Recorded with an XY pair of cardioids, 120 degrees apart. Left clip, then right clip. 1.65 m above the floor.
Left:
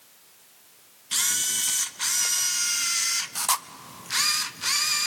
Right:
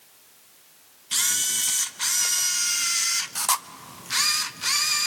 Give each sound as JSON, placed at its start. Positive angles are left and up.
{"t": 1.1, "sound": "a camera shutter", "azimuth_deg": -5, "distance_m": 0.5}